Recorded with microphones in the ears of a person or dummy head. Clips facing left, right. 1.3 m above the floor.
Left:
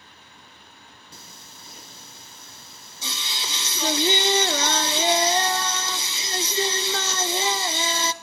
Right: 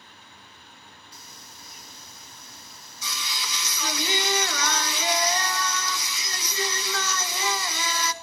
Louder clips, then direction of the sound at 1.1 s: Left 1 dB; 25° left (ahead or behind).